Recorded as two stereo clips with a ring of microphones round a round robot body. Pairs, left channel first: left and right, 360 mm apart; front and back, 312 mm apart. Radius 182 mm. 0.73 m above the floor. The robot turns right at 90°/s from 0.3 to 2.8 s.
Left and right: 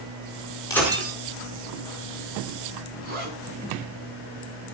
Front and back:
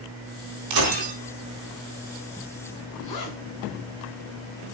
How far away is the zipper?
About 6 m.